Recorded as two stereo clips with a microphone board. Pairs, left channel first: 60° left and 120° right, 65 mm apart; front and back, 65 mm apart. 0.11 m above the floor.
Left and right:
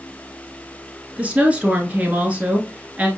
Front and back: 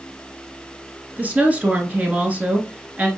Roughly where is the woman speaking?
Behind right.